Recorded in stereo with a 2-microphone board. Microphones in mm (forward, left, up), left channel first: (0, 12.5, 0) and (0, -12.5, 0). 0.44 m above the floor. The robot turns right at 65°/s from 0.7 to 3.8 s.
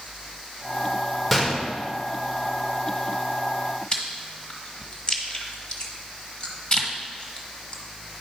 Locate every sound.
1.3 s a gunshot: 5° right (ahead or behind), 1.4 m; by 1.7 s 15° left (ahead or behind), 1.4 m
3.9 s chewing: 35° left (ahead or behind), 1.3 m